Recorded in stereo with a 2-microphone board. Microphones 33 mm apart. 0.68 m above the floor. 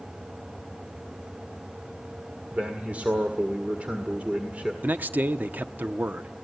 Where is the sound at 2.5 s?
40° right (ahead or behind), 1.8 m.